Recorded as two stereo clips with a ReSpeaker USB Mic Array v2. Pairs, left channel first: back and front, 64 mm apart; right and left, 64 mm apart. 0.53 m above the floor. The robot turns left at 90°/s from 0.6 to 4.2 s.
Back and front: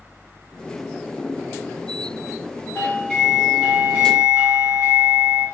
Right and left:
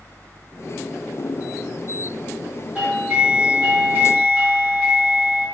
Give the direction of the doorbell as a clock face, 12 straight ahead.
7 o'clock.